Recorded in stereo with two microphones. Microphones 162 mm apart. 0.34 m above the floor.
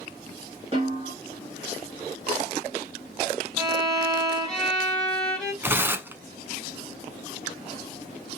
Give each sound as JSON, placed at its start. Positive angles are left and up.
{"t": 0.7, "sound": "a snare drum", "side_deg": -35, "distance_m": 2.0}
{"t": 3.6, "sound": "a violin", "side_deg": 5, "distance_m": 1.7}
{"t": 5.6, "sound": "tearing paper", "side_deg": -10, "distance_m": 0.7}